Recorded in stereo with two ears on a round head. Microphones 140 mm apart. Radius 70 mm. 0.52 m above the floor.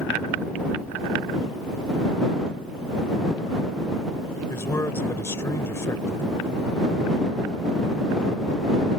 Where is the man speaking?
20° left (ahead or behind).